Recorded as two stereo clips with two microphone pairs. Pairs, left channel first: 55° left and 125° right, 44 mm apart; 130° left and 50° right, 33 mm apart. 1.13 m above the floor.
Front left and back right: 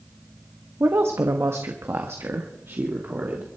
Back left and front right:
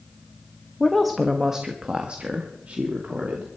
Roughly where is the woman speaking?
Behind right.